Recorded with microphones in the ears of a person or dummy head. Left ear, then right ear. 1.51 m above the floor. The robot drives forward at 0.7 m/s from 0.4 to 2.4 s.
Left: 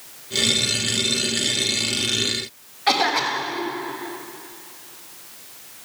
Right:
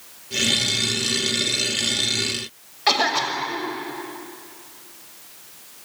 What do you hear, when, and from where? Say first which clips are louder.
2.9 s a cough: even; 40° right (ahead or behind), 6 m